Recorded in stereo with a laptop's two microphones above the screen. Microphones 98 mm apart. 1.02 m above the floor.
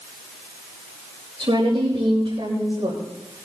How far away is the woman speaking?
About 5.5 m.